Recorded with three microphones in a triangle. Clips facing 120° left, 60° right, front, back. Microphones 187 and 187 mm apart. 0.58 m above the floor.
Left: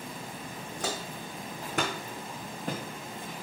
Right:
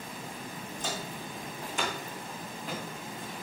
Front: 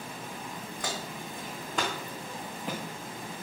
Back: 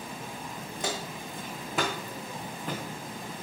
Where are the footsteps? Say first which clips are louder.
Left 2 dB, back 3 dB; 115° left, 1.8 m; by 2.8 s 80° left, 2 m.